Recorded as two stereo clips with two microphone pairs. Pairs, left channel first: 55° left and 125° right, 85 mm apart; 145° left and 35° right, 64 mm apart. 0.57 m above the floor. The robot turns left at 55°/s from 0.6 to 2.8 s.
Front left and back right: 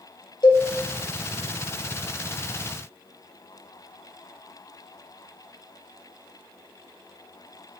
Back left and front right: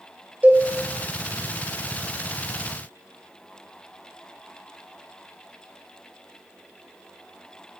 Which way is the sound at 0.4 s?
30° left.